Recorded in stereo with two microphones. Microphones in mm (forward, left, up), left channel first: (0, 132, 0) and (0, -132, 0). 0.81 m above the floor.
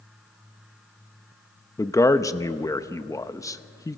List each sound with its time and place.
1.8 s a man speaking: 15° left (ahead or behind), 0.7 m